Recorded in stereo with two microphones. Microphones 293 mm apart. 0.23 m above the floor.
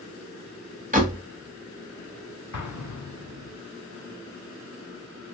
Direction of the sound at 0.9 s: 25° right (ahead or behind).